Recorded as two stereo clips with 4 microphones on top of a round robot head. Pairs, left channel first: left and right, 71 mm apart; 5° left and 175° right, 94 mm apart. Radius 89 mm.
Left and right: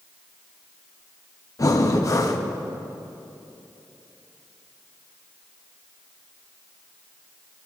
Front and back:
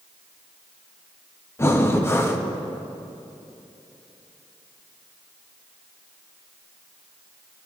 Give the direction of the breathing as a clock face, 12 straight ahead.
10 o'clock.